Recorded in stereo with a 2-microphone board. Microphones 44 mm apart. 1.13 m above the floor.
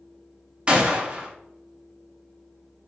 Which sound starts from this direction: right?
A gunshot, at 0.7 s.